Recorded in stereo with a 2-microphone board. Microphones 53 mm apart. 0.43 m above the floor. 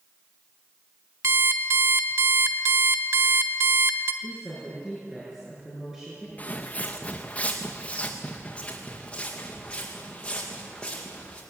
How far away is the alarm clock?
About 1.9 m.